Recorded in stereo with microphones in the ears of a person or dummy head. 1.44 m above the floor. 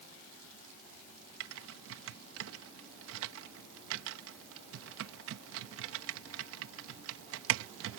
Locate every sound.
1.4 s typing on a keyboard: 85° right